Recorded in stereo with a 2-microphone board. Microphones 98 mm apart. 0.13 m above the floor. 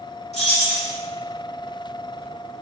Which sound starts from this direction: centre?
Keys jangling, at 0.3 s.